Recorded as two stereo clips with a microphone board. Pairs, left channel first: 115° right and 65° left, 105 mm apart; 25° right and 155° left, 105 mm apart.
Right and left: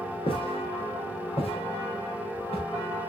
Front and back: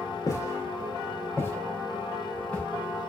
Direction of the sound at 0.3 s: 80° right.